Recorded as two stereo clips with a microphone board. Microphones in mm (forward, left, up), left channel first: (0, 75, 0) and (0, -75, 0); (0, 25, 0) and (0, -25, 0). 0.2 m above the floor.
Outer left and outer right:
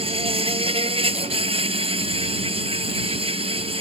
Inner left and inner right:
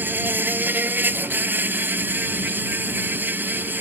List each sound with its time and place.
0.0 s an insect: 40° right (ahead or behind)